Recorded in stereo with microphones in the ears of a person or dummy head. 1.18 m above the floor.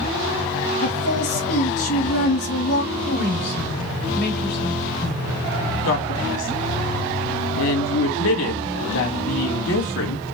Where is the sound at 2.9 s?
55° left (ahead or behind), 2.5 m.